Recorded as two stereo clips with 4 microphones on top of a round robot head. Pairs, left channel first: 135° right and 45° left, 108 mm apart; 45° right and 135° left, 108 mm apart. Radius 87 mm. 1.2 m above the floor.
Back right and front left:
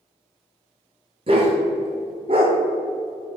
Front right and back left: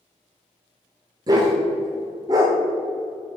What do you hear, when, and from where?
1.3 s a dog barking: 85° left, 1.1 m